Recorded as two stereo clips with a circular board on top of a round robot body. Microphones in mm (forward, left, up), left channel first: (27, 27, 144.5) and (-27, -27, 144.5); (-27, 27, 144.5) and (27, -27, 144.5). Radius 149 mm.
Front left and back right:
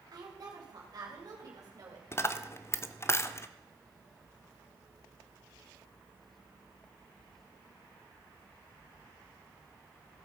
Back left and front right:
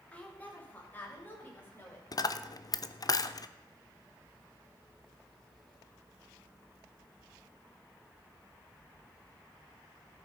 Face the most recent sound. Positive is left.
turn(degrees=100)